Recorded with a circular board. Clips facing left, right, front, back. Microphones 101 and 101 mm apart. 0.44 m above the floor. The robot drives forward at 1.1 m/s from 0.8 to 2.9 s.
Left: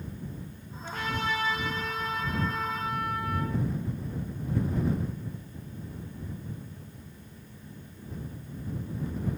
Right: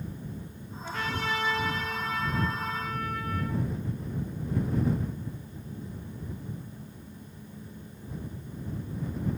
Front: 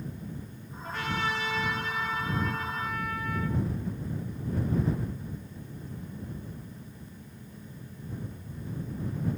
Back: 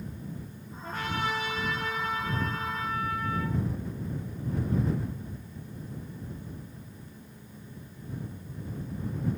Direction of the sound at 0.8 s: 130° left.